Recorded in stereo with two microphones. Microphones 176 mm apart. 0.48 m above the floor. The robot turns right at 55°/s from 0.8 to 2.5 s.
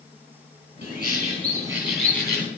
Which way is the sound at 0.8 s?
65° right.